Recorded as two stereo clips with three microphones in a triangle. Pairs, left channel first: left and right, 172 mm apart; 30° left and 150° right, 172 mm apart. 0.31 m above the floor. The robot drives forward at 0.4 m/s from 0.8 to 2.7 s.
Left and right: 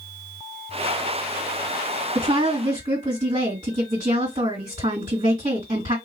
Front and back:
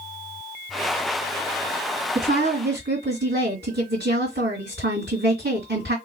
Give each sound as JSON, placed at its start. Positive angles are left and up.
{"t": 2.1, "sound": "a woman speaking", "azimuth_deg": -135, "distance_m": 2.0}